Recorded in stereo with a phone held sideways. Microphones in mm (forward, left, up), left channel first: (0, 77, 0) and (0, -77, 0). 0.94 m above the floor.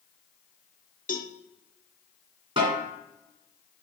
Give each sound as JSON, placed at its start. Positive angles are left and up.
{"t": 1.1, "sound": "a cowbell", "side_deg": 60, "distance_m": 0.9}
{"t": 2.6, "sound": "a snare drum", "side_deg": -35, "distance_m": 2.5}